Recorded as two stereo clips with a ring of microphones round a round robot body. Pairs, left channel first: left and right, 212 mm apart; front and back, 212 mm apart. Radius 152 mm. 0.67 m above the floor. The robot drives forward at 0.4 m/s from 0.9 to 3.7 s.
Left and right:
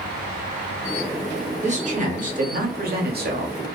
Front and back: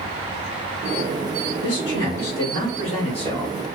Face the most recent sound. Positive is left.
turn(degrees=-75)